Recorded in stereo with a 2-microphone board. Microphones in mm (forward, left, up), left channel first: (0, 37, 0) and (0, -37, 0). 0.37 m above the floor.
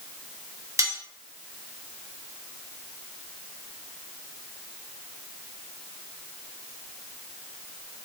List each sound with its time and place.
0.8 s cutlery clinking: 45° right (ahead or behind), 0.9 m